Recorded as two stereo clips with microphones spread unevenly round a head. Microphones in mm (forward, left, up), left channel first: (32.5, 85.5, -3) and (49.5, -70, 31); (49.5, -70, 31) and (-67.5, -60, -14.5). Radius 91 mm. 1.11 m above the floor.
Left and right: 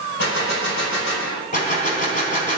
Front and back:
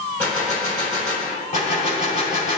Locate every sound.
0.2 s a gunshot: 115° left, 5.5 m
1.5 s a gunshot: 55° left, 4 m